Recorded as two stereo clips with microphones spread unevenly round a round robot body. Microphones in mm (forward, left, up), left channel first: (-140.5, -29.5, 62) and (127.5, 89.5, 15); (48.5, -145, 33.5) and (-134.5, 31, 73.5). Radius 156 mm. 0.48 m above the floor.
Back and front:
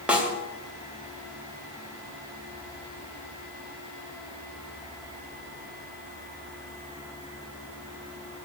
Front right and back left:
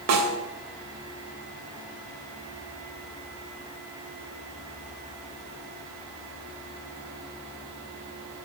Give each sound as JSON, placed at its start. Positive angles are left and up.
{"t": 0.1, "sound": "a snare drum", "azimuth_deg": 105, "distance_m": 3.0}